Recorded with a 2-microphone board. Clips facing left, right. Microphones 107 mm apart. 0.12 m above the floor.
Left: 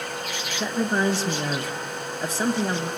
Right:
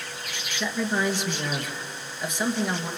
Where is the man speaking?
35° left (ahead or behind), 1.8 m.